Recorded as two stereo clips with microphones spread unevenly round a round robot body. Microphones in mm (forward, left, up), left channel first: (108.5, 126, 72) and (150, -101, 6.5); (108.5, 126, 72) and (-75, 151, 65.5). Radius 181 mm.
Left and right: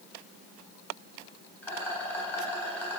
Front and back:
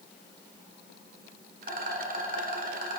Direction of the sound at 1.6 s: 165° right.